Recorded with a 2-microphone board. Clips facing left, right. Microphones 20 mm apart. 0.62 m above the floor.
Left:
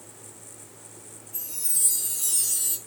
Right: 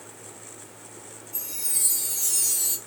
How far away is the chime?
About 7 m.